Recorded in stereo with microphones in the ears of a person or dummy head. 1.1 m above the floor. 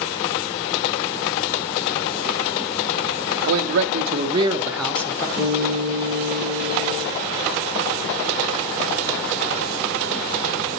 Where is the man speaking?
75° right (ahead or behind), 0.8 m; by 5.3 s 20° left (ahead or behind), 0.9 m.